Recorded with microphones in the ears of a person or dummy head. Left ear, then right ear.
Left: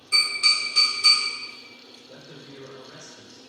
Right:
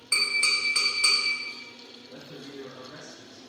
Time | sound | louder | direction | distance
0.1 | tapping | left 3 dB | 30° right (ahead or behind) | 1.0 m
2.1 | a man speaking | right 2 dB | 55° left (ahead or behind) | 0.9 m